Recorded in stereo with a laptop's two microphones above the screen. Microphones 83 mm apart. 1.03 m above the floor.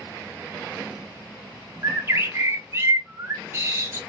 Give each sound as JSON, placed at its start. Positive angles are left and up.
{"t": 1.8, "sound": "a bird", "side_deg": -30, "distance_m": 0.5}